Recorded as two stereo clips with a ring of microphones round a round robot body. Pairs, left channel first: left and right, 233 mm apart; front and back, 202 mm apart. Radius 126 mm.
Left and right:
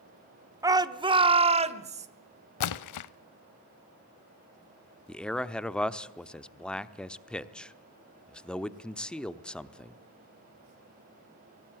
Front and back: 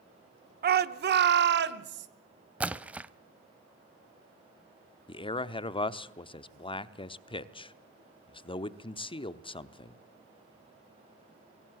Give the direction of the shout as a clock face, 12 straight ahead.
5 o'clock.